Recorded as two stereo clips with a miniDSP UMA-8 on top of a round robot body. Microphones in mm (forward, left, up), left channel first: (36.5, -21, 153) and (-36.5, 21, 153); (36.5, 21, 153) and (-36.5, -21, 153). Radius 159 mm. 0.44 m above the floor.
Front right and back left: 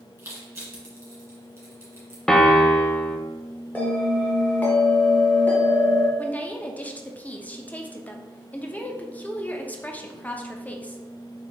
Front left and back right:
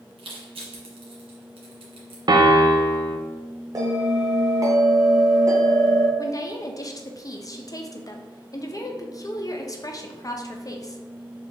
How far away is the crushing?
About 2 m.